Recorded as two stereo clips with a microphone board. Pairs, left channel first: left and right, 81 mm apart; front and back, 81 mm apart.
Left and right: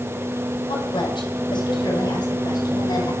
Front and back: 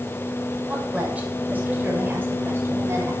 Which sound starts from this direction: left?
A woman speaking, at 0.7 s.